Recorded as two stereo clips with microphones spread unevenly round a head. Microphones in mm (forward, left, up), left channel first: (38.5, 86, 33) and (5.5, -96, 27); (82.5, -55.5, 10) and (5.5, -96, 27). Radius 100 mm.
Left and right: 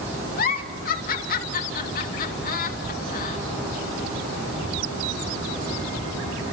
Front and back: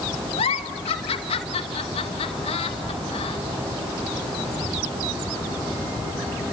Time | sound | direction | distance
0.4 | a giggle | 40° left | 2 m